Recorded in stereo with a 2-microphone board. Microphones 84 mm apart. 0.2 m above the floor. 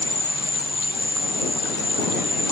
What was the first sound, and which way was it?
An insect, 25° right (ahead or behind).